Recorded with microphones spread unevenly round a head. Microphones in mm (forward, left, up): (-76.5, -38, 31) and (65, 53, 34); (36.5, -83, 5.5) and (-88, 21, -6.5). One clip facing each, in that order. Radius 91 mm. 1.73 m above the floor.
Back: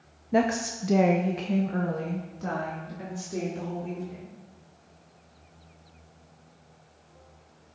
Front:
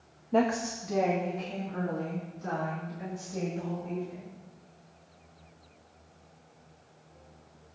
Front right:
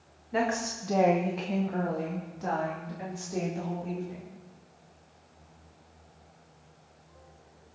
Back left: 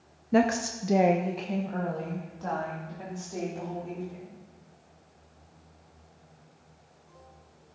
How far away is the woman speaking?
About 0.8 m.